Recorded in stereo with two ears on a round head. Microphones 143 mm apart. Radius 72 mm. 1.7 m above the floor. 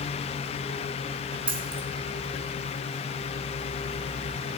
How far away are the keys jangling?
About 1.9 m.